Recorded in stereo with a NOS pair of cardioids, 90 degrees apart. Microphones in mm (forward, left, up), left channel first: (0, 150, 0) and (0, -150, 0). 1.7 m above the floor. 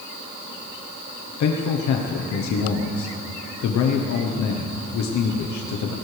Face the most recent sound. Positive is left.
turn(degrees=70)